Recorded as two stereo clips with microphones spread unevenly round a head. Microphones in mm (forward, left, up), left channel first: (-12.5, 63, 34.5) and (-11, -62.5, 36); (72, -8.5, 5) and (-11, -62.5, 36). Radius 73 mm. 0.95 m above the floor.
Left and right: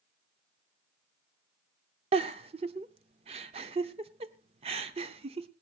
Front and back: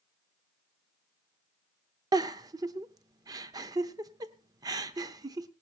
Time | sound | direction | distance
2.1 | a giggle | 125° right | 0.8 m